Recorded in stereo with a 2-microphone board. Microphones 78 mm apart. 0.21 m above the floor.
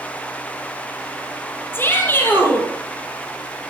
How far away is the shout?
About 5 m.